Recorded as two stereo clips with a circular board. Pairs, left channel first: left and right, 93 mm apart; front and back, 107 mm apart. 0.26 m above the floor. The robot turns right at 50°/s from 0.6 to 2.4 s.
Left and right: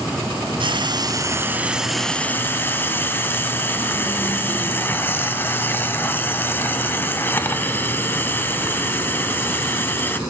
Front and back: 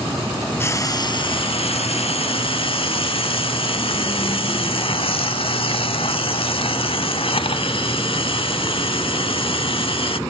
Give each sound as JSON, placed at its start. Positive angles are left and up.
{"t": 0.6, "sound": "frying", "azimuth_deg": -65, "distance_m": 0.5}